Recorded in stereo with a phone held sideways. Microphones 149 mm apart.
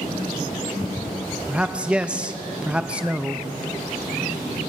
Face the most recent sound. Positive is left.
turn(degrees=-5)  # may be behind; listen again after turning